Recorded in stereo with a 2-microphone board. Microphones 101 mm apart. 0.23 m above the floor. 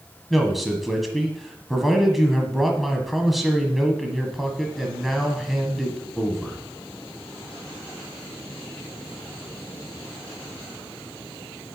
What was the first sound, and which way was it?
A man speaking, centre (ahead or behind).